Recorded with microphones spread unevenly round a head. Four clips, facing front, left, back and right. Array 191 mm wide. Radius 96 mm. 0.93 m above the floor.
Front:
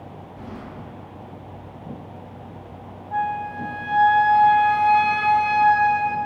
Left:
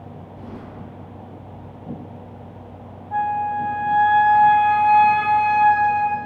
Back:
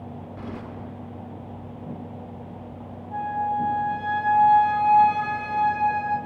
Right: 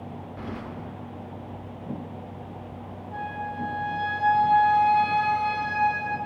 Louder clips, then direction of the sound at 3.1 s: Left 12 dB, even; 45° left.